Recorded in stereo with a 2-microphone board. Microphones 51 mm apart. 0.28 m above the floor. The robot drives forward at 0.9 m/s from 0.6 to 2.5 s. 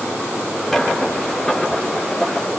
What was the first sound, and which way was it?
Only background noise.